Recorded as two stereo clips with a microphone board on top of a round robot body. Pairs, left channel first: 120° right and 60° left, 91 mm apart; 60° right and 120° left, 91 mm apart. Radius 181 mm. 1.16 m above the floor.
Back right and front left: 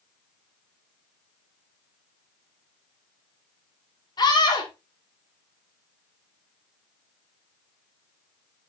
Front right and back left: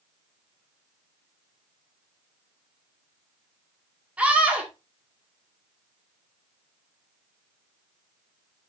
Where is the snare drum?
I don't hear a snare drum.